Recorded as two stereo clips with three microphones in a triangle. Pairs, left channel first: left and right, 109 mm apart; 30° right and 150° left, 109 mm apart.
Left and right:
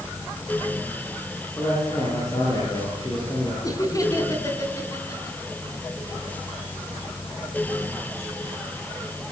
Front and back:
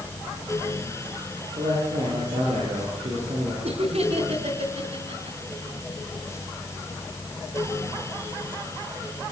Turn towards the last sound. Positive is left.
turn(degrees=145)